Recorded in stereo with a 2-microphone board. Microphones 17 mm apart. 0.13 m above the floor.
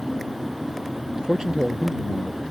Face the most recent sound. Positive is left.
turn(degrees=-30)  # may be behind; listen again after turning